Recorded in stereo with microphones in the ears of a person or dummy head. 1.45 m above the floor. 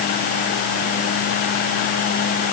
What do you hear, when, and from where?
Only background noise.